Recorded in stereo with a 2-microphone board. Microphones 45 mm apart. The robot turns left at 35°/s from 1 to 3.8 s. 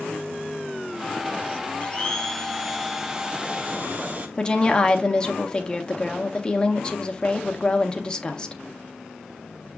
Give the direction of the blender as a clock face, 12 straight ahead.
11 o'clock.